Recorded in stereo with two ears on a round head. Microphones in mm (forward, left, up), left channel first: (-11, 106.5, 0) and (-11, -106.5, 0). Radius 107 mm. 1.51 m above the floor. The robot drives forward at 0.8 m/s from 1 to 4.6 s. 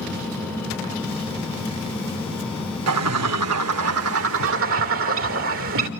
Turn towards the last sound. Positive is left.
turn(degrees=-60)  # may be behind; listen again after turning